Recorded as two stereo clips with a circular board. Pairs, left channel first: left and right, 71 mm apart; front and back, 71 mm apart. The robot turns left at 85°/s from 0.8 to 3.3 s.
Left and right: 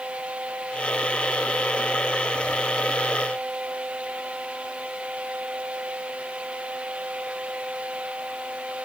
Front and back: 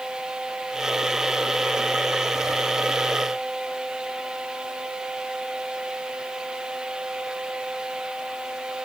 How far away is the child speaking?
I don't hear a child speaking.